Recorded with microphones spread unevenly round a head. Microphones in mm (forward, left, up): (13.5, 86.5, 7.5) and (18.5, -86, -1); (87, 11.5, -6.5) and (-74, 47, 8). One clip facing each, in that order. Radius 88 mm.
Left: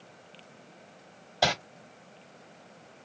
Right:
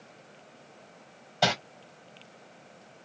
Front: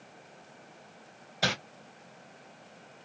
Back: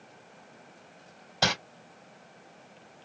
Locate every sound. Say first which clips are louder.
1.4 s crumpling: right 1 dB, back 3 dB; 175° left, 1.7 m